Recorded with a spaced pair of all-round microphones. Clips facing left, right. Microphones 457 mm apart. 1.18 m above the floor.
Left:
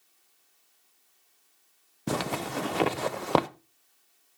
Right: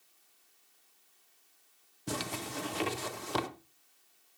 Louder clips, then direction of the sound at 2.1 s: Left 7 dB; 75° left (ahead or behind).